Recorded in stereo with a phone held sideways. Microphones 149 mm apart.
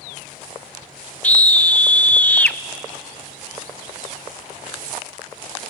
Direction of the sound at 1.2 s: 10° left (ahead or behind).